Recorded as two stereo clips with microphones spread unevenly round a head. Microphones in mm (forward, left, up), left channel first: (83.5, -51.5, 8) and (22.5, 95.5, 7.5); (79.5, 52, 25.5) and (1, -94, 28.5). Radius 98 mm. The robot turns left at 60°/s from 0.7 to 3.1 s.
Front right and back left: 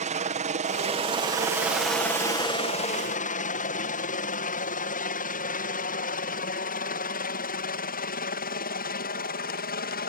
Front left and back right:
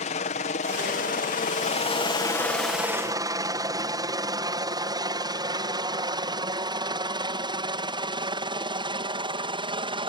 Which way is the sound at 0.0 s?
95° left.